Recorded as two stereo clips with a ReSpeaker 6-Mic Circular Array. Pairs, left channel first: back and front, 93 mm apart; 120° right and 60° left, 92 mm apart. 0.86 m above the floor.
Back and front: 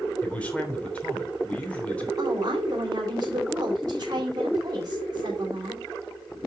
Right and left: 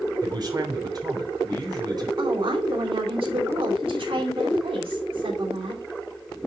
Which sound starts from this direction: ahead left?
A woman speaking, at 2.2 s.